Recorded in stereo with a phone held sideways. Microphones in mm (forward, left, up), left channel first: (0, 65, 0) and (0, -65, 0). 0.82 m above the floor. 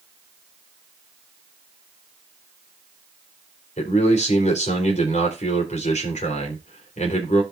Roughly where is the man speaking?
Left.